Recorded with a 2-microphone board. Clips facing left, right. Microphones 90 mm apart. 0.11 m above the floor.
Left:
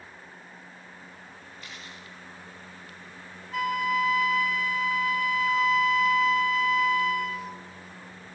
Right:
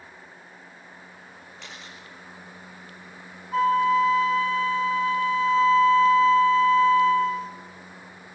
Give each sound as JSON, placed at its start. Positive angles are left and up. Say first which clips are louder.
{"t": 1.6, "sound": "a camera shutter", "louder": "right 2 dB", "side_deg": -80, "distance_m": 7.0}
{"t": 3.5, "sound": "a flute", "louder": "right 7 dB", "side_deg": -30, "distance_m": 0.8}